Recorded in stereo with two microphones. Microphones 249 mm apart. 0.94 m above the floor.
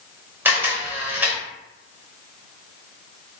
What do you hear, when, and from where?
0.5 s a camera shutter: 10° right (ahead or behind), 0.8 m